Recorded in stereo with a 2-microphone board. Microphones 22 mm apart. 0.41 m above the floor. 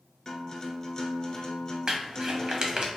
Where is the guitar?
25° left (ahead or behind), 1.0 m.